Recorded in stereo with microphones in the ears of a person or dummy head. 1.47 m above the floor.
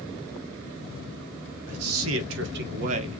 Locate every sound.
1.7 s a man speaking: 75° right (ahead or behind), 1.4 m; by 3.2 s 25° right (ahead or behind), 0.8 m